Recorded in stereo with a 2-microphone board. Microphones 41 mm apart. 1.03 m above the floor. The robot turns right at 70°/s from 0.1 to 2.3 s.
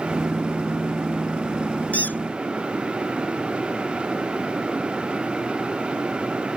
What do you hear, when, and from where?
1.9 s a squeak: 35° left (ahead or behind); by 2.2 s 55° left (ahead or behind)